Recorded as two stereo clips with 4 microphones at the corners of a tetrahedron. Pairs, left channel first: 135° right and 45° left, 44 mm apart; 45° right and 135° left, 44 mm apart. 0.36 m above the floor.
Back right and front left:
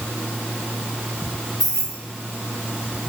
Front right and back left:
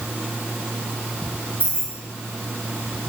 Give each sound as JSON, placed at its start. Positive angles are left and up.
{"t": 1.6, "sound": "keys jangling", "azimuth_deg": 130, "distance_m": 1.8}